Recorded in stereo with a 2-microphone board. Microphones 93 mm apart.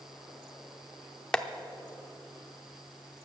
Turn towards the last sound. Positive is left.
turn(degrees=10)  # may be behind; listen again after turning